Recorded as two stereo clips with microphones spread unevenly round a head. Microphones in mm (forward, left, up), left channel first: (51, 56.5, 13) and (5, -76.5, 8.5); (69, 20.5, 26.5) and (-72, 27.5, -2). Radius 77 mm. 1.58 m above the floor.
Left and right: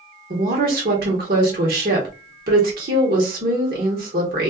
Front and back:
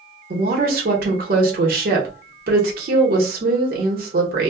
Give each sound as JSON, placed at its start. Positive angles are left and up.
{"t": 0.3, "sound": "a woman speaking", "azimuth_deg": -145, "distance_m": 1.1}